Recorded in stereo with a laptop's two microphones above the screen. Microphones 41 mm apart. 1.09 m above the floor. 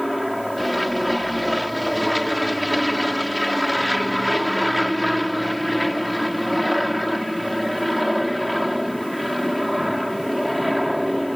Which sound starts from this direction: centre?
An aircraft, at 0.0 s.